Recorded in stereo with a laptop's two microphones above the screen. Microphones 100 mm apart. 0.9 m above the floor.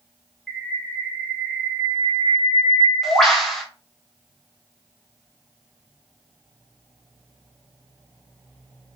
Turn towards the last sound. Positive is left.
turn(degrees=0)  # may be behind; listen again after turning